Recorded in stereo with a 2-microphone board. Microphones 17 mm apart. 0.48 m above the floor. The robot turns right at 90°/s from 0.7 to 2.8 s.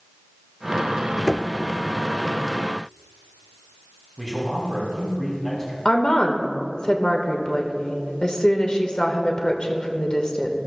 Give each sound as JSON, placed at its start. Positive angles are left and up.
{"t": 1.3, "sound": "knocking", "side_deg": 0, "distance_m": 0.5}
{"t": 4.2, "sound": "a man speaking", "side_deg": 25, "distance_m": 3.5}
{"t": 5.8, "sound": "a woman speaking", "side_deg": 45, "distance_m": 1.2}